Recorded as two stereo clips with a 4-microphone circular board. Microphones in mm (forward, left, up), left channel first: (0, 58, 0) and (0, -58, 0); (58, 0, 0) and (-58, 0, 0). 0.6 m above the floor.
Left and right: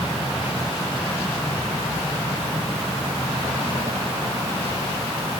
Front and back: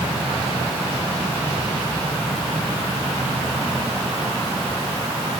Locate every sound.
Only background noise.